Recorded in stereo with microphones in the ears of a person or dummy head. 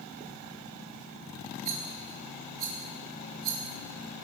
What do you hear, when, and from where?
1.6 s a rattle: 50° right (ahead or behind), 2.5 m